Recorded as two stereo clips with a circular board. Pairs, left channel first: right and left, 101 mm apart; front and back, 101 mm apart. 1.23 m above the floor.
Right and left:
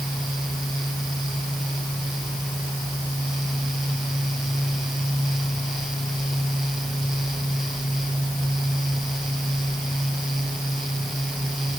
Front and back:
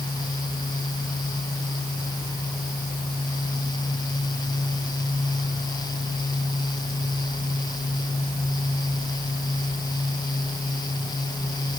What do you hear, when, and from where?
Only background noise.